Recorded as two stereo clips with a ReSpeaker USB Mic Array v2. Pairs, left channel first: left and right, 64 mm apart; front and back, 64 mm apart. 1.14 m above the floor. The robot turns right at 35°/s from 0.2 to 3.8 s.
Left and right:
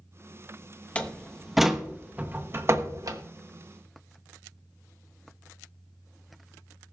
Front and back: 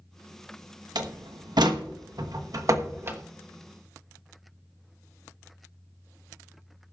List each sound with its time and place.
0.9 s a door slam: 160° left, 1.0 m; by 3.2 s 125° right, 1.0 m